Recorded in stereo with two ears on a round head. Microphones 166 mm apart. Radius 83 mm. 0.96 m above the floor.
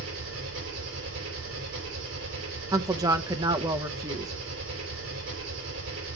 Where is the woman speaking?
20° right (ahead or behind), 0.8 m.